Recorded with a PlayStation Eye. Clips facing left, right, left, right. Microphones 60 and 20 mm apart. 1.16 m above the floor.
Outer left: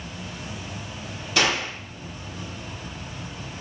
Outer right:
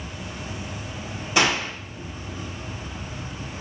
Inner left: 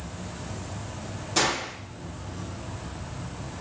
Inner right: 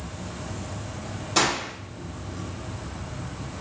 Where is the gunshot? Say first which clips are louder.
Outer right 2 dB, inner right 2 dB; 20° right (ahead or behind), 2.5 m.